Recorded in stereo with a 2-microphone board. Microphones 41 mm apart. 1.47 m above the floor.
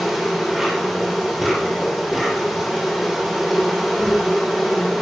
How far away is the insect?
About 3 m.